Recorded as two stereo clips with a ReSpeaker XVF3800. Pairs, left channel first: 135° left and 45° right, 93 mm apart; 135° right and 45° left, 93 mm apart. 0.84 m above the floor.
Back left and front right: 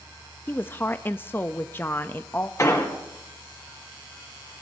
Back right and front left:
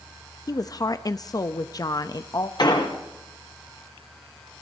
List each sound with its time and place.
0.5 s a woman speaking: 165° right, 0.5 m
2.6 s an explosion: 170° right, 2.5 m